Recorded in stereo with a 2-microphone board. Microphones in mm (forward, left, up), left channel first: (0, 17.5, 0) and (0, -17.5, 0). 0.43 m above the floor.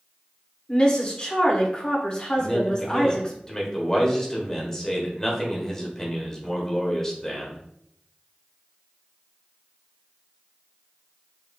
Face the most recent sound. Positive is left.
turn(degrees=15)  # may be behind; listen again after turning